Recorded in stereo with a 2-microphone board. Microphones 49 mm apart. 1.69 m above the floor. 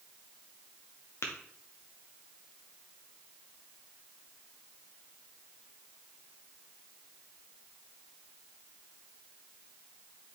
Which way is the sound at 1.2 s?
60° left (ahead or behind).